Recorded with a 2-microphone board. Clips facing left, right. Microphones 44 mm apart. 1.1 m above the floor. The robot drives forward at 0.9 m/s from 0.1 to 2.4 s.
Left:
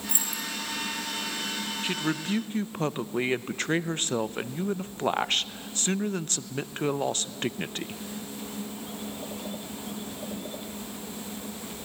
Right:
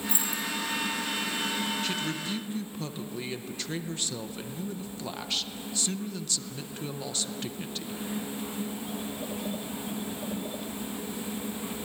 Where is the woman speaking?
25° left (ahead or behind), 0.9 m; by 8.0 s 45° left (ahead or behind), 0.5 m.